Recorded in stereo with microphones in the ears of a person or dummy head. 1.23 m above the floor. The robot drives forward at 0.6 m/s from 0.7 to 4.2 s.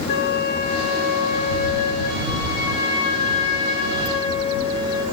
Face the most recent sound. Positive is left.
turn(degrees=35)  # may be behind; listen again after turning